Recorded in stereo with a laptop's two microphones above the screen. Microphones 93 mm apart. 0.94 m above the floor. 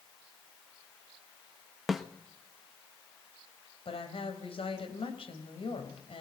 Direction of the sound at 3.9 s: 70° left (ahead or behind).